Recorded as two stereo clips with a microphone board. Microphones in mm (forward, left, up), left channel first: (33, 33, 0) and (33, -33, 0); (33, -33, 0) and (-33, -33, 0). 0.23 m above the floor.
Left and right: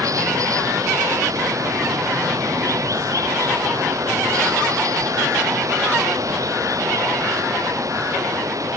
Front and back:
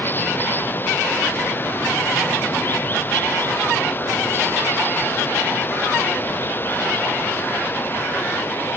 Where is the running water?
60° right.